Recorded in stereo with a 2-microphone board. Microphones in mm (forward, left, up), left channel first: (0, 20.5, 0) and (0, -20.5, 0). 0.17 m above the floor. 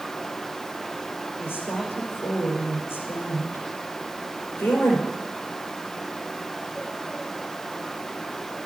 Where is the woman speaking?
70° left (ahead or behind), 4.5 m.